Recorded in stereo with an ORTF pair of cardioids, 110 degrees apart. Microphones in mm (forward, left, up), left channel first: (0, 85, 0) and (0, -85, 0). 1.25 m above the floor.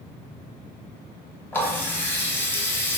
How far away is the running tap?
About 0.8 m.